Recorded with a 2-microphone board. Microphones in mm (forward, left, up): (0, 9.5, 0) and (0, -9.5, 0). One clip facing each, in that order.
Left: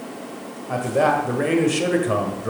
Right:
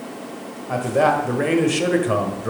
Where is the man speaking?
5° right (ahead or behind), 1.4 m.